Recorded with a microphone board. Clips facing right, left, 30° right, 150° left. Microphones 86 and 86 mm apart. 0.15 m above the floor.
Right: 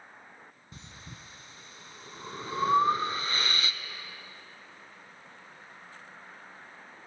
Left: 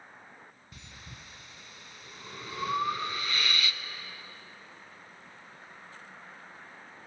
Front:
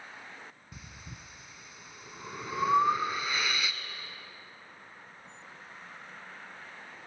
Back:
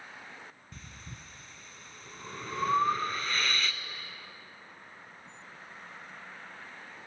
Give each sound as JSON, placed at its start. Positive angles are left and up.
{"t": 0.7, "sound": "breathing", "azimuth_deg": -100, "distance_m": 0.5}